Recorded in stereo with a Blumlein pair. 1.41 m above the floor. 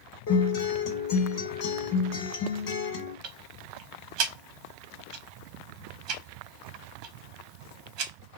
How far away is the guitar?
About 1.7 m.